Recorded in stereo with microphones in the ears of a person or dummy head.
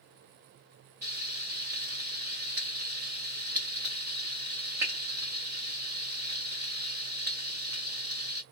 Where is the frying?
10° right (ahead or behind), 0.7 m.